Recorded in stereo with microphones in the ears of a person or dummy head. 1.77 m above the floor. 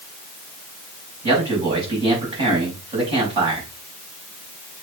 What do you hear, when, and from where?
1.2 s a man speaking: 30° right (ahead or behind), 4.5 m